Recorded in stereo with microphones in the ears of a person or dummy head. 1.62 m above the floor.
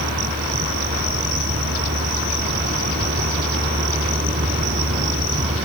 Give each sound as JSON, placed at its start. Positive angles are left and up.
{"t": 0.0, "sound": "a vehicle", "side_deg": -45}